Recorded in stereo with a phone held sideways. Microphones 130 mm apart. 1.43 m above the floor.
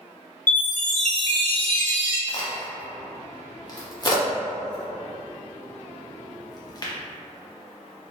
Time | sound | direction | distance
0.5 | a chime | 85° left | 0.7 m
2.3 | a crack | 30° left (ahead or behind) | 0.6 m